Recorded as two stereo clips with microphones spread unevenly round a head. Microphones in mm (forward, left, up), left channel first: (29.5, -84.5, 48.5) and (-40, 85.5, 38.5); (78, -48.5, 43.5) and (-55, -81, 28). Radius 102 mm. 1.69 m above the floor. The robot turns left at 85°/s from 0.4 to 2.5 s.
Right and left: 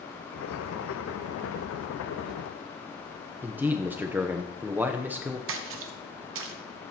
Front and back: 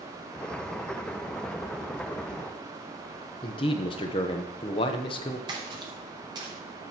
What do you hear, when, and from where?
3.4 s a man speaking: 30° left, 0.7 m
5.5 s a splash: 125° left, 0.9 m